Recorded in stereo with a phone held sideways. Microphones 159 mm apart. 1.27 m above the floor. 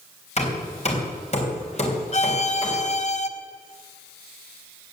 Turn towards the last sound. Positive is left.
turn(degrees=45)  # may be behind; listen again after turning